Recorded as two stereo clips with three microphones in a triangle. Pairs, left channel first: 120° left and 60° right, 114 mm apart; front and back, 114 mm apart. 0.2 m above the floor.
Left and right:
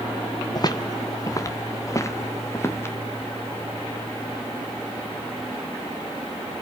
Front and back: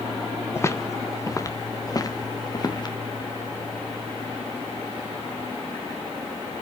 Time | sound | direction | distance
0.6 | footsteps | 65° left | 2.0 m